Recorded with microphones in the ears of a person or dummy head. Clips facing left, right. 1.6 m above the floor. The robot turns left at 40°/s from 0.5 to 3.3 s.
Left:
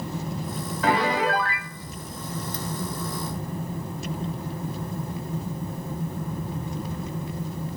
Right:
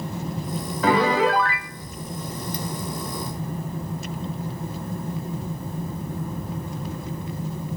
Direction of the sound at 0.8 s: 105° right.